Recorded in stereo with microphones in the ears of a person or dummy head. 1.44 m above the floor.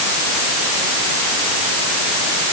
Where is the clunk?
I don't hear a clunk.